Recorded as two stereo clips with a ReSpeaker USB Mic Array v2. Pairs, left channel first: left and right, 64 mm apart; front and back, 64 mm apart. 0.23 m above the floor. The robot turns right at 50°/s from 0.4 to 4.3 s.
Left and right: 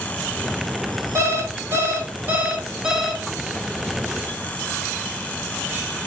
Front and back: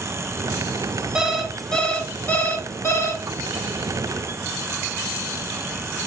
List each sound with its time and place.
1.1 s an alarm clock: 105° right, 0.9 m; by 3.2 s straight ahead, 0.9 m